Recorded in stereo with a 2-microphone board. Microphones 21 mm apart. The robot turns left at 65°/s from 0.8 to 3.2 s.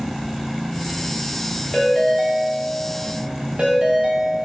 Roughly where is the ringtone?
Ahead left.